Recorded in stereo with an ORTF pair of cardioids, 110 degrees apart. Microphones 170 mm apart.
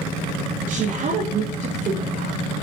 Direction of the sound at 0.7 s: 50° right.